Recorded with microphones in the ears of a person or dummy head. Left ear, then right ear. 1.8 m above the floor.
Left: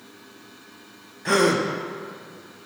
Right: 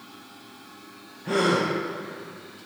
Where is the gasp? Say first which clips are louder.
Left 3 dB; 55° left (ahead or behind), 0.8 m.